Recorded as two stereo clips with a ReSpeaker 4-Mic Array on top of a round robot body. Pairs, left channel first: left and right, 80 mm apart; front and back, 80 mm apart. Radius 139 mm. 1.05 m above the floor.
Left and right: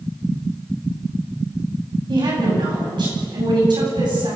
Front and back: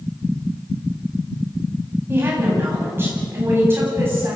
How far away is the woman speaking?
About 9 m.